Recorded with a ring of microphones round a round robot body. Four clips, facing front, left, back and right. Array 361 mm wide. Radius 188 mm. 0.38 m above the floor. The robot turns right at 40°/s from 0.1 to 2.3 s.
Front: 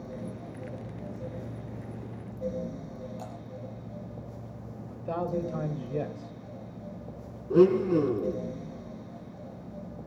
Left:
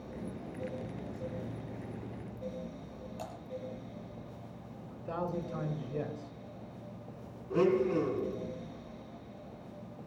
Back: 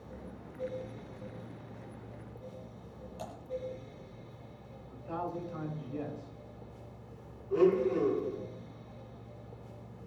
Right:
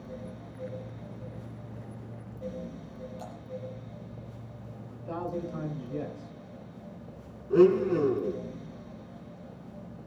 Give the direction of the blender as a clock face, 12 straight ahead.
1 o'clock.